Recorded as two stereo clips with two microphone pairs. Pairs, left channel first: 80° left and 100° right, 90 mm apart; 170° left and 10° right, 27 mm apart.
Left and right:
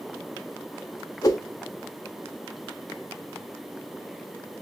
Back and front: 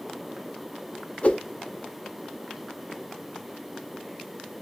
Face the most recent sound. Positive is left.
turn(degrees=130)